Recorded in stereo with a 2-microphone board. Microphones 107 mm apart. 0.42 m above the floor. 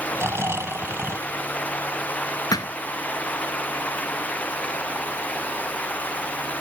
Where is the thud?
40° left (ahead or behind).